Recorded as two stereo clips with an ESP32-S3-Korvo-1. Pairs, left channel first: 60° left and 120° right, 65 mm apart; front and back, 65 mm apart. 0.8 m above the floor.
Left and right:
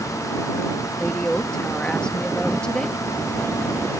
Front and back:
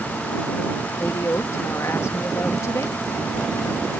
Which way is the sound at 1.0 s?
10° right.